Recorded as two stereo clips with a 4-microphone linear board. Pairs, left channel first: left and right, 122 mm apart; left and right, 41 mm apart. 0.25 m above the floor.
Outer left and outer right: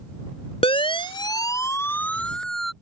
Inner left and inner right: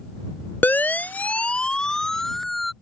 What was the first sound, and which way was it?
A siren, 55° left (ahead or behind).